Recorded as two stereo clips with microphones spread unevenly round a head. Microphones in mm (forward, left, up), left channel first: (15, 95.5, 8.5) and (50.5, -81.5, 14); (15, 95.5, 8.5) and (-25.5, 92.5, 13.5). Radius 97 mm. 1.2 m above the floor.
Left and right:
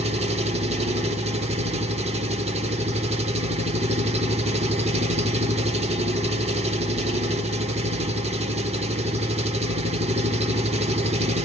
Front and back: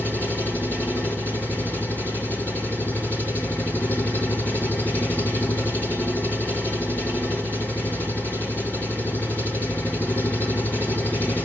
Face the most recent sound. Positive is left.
turn(degrees=-40)